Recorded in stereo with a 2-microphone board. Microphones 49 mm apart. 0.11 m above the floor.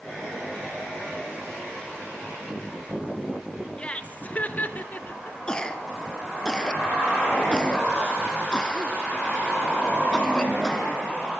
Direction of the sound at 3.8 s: 25° left (ahead or behind).